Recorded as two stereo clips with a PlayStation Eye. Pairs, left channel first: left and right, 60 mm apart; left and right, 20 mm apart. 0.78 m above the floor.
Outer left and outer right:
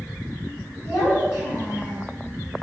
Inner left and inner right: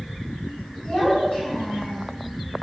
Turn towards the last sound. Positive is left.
turn(degrees=65)  # may be behind; listen again after turning